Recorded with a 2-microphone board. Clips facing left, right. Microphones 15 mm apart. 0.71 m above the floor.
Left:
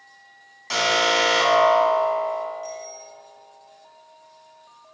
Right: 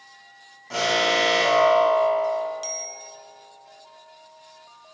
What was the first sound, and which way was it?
An alarm, 80° left.